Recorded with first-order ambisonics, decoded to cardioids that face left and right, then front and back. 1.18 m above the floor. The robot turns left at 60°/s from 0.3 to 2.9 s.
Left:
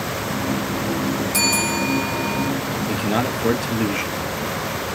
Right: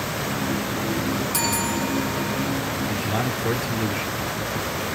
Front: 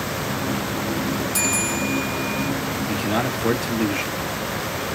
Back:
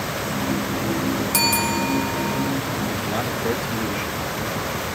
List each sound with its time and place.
1.3 s a bell: 175° right, 1.3 m; by 2.5 s 110° left, 1.3 m
2.9 s a man speaking: 65° left, 1.4 m